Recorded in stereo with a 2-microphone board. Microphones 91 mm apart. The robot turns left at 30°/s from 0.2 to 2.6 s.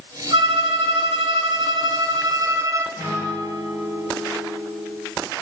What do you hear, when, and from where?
0.3 s a violin: 75° right, 0.9 m; by 2.9 s 140° right, 0.9 m
3.0 s a guitar: 30° right (ahead or behind), 7 m